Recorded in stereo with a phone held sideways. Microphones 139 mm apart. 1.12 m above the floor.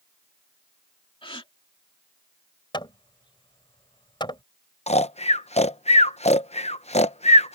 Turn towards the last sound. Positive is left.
turn(degrees=55)  # may be behind; listen again after turning